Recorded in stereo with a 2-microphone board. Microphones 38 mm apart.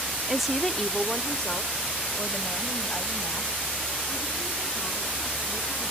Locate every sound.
0.3 s a woman speaking: 5° right (ahead or behind), 0.6 m; by 5.9 s 30° left (ahead or behind), 5 m